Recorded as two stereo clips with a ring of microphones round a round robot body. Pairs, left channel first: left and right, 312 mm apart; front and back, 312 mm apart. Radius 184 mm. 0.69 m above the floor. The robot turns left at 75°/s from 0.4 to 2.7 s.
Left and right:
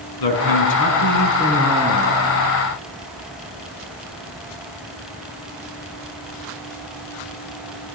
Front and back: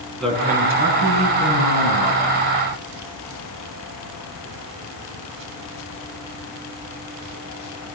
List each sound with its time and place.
0.2 s a man speaking: 90° left, 7 m; by 2.5 s 70° right, 7 m